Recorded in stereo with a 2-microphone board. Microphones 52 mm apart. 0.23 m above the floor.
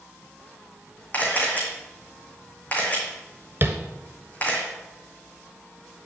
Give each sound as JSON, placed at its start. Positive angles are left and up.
{"t": 1.1, "sound": "a camera shutter", "side_deg": 30, "distance_m": 2.5}
{"t": 3.6, "sound": "tapping", "side_deg": -45, "distance_m": 1.0}